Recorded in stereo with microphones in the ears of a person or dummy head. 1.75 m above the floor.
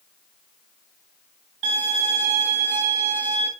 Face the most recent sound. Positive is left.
turn(degrees=-45)  # may be behind; listen again after turning